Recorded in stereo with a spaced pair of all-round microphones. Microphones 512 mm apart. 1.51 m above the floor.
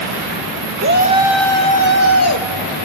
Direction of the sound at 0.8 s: 25° right (ahead or behind).